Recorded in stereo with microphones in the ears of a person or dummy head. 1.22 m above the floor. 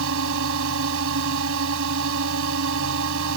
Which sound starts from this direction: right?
A drone, at 0.0 s.